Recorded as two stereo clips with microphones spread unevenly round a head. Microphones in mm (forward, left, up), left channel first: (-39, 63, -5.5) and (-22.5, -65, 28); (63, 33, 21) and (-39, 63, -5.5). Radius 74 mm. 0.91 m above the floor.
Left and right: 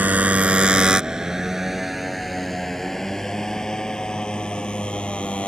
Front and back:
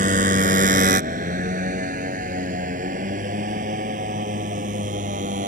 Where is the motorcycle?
160° right; by 5.5 s straight behind.